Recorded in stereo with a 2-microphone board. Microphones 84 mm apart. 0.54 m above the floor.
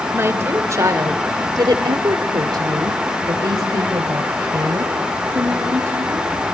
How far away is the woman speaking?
About 2.5 m.